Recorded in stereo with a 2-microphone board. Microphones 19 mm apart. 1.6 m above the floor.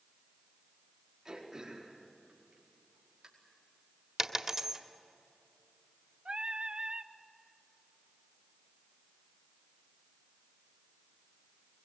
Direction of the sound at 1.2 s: 30° right (ahead or behind).